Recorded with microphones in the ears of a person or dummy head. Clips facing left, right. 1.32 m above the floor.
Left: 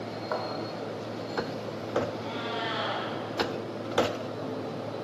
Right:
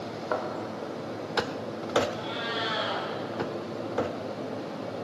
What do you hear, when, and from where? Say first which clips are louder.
0.3 s a thud: right 3 dB; 35° right (ahead or behind), 1.6 m
2.1 s a cat meowing: even; 35° right (ahead or behind), 5.5 m